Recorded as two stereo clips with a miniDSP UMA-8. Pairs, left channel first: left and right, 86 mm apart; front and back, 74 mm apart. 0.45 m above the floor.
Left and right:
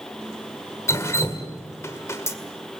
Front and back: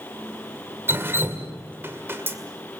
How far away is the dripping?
About 2.0 m.